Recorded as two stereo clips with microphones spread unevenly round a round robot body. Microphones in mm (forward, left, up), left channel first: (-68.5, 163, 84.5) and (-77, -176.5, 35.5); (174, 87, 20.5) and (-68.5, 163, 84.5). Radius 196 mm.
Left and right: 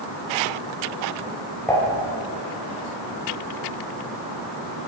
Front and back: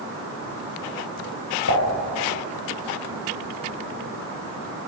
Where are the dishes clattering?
5° left, 6 m.